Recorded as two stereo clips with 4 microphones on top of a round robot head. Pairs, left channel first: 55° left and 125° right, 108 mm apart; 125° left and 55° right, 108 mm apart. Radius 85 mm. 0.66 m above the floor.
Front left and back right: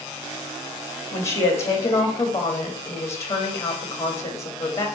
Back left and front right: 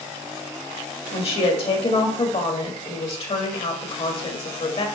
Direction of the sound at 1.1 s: 110° left.